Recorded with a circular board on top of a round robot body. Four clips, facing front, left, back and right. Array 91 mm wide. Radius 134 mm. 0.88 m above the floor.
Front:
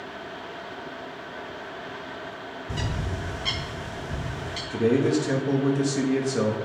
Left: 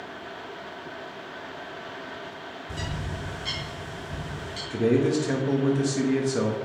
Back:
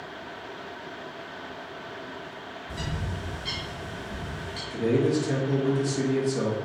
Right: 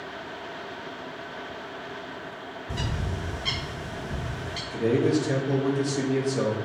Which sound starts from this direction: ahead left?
A man speaking, at 4.7 s.